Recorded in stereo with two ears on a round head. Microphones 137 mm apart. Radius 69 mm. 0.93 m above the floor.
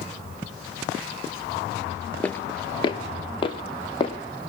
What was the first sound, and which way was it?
Footsteps, 10° left (ahead or behind).